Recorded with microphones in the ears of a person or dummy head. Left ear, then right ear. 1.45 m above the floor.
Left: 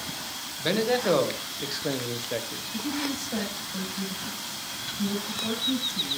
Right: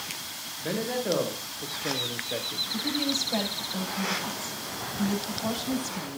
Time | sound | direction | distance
0.6 | a man speaking | 40° left (ahead or behind) | 1.6 m
2.7 | a woman speaking | 50° right (ahead or behind) | 8 m